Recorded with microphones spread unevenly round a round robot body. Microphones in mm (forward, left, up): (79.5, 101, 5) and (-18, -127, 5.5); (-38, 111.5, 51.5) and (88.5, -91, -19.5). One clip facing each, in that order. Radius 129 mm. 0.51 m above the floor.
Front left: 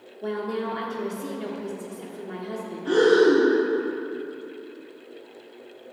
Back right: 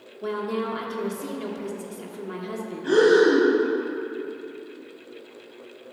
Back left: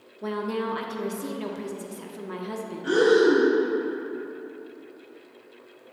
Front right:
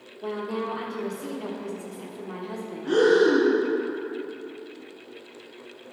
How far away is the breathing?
About 3.5 m.